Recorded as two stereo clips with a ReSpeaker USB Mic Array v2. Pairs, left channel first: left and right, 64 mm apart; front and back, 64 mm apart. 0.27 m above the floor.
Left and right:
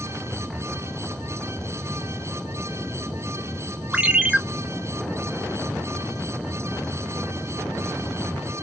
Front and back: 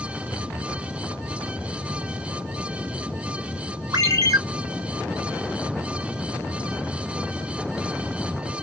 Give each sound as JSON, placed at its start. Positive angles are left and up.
{"t": 3.9, "sound": "a ringtone", "azimuth_deg": -170, "distance_m": 1.9}